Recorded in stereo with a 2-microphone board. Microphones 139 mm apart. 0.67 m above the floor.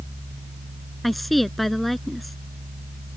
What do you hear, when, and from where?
1.0 s a woman speaking: centre (ahead or behind)